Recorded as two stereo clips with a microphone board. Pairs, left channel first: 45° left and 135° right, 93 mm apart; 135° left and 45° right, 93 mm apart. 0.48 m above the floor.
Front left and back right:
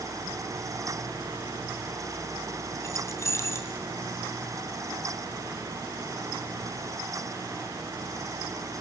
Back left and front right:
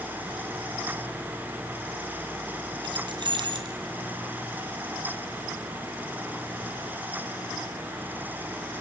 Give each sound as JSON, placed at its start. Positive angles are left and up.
{"t": 2.8, "sound": "keys jangling", "azimuth_deg": -15, "distance_m": 2.0}